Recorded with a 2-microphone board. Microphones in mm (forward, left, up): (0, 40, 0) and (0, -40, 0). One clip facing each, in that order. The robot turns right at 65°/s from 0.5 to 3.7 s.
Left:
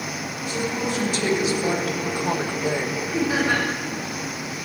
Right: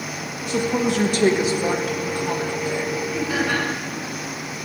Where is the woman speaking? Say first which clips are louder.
Right 5 dB; 95° right, 1.7 m; by 3.0 s 65° left, 1.7 m.